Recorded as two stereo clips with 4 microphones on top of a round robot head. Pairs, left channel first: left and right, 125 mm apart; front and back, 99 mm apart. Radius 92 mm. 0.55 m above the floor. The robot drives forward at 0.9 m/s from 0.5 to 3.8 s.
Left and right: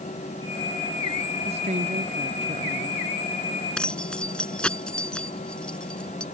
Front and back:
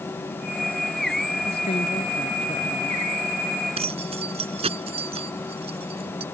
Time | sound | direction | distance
1.4 | a woman speaking | 40° right | ?
3.8 | keys jangling | 170° left | ?